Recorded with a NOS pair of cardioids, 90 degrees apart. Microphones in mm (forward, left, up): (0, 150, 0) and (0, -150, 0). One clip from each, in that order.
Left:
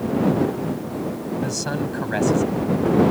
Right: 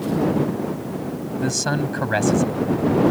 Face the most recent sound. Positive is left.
turn(degrees=-35)